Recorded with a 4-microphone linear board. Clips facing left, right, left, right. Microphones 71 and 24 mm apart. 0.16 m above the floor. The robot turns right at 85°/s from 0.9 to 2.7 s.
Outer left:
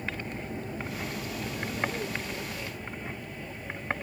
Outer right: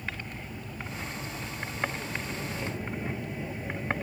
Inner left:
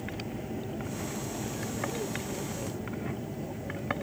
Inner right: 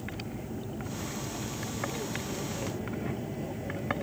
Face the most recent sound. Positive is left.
turn(degrees=-165)